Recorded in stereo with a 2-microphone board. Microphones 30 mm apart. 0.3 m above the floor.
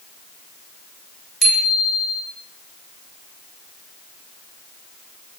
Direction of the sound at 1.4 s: Centre (ahead or behind).